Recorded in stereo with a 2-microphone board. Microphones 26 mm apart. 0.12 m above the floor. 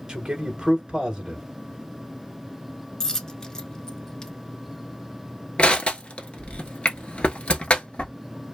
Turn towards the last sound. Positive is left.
turn(degrees=50)  # may be behind; listen again after turning